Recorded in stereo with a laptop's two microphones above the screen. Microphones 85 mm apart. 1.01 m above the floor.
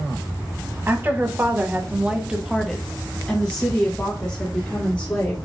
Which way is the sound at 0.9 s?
25° right (ahead or behind).